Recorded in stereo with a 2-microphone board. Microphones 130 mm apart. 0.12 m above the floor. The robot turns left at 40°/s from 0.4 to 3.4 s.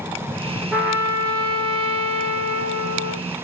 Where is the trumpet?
5° right, 0.9 m; by 3.2 s 110° right, 0.9 m.